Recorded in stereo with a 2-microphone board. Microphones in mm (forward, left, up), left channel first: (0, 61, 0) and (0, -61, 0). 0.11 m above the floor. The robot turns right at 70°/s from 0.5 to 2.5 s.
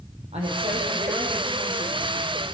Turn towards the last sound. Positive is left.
turn(degrees=70)